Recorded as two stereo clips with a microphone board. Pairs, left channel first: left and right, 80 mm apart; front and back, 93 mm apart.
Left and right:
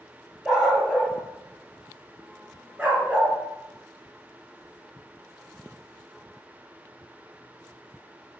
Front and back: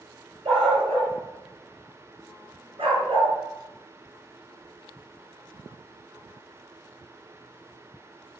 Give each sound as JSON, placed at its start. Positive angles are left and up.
{"t": 0.5, "sound": "a dog barking", "azimuth_deg": -175, "distance_m": 5.0}